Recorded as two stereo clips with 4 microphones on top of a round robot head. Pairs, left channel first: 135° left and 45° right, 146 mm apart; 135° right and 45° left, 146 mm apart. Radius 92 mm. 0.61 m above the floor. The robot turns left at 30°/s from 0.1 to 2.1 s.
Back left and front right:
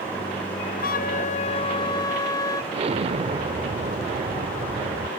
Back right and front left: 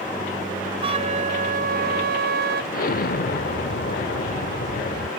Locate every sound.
0.8 s a flute: 105° left; by 2.6 s 65° left
2.7 s an explosion: 100° right